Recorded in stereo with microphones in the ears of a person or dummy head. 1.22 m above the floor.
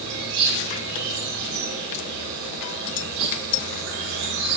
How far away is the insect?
About 4.5 m.